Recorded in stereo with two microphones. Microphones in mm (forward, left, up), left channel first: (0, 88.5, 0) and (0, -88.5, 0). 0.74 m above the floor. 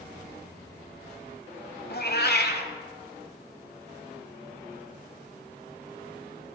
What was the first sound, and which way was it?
A cat meowing, 65° left (ahead or behind).